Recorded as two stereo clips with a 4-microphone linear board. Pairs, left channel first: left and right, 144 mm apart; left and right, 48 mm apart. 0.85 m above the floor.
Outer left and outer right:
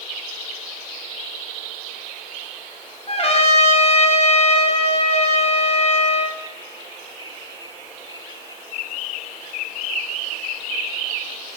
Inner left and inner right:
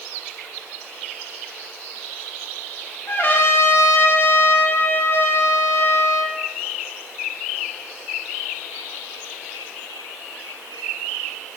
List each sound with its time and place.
3.1 s a trumpet: 45° left (ahead or behind), 0.8 m